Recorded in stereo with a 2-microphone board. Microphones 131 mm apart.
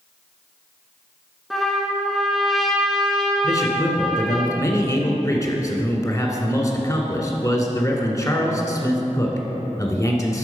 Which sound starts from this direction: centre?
A trumpet, at 1.5 s.